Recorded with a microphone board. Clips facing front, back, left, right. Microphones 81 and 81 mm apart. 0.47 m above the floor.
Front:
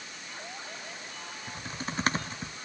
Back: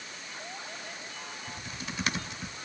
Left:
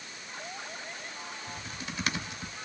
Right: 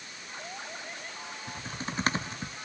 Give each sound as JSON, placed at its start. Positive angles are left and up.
{"t": 1.5, "sound": "typing on a keyboard", "azimuth_deg": -45, "distance_m": 1.5}